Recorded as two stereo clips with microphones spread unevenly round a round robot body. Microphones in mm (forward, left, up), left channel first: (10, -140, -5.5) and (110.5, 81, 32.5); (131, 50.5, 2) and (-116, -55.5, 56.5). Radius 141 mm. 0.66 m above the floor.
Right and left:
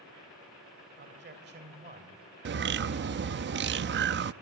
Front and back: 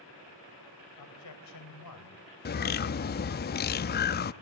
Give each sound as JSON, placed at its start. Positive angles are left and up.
{"t": 1.0, "sound": "a man speaking", "azimuth_deg": 20, "distance_m": 3.5}
{"t": 2.5, "sound": "a bird", "azimuth_deg": 30, "distance_m": 0.5}